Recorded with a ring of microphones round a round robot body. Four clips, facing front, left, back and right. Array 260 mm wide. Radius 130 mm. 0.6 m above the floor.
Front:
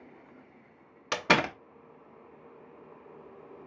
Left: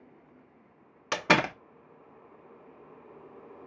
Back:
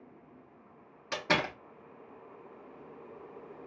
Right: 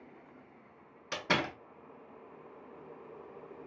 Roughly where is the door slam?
Ahead left.